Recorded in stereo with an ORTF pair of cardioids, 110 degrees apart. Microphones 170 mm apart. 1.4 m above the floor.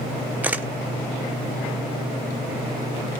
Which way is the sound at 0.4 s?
10° right.